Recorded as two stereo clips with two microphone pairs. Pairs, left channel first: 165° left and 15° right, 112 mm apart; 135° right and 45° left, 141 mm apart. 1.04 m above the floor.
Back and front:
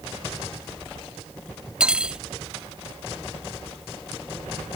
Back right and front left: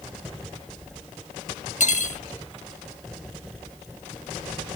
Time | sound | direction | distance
1.8 | cutlery clinking | 100° right | ?